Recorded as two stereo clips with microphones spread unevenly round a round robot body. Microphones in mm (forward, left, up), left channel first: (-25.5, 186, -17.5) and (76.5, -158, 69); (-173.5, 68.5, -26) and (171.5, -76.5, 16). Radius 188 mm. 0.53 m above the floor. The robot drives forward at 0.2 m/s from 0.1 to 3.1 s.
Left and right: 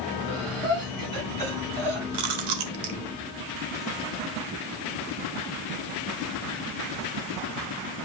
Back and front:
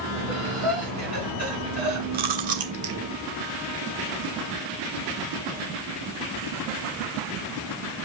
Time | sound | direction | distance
0.3 | breathing | 95° right | 6 m
2.1 | chewing | 90° right | 1.2 m